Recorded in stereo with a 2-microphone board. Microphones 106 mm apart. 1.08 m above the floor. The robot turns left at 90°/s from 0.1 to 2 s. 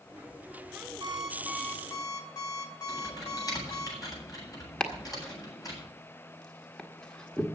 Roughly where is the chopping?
Centre.